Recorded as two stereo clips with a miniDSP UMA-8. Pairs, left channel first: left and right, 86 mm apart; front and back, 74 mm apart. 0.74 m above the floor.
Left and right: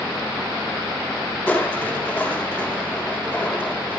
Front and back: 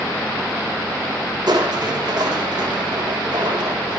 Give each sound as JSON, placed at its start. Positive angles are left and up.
{"t": 1.5, "sound": "crushing", "azimuth_deg": 160, "distance_m": 6.5}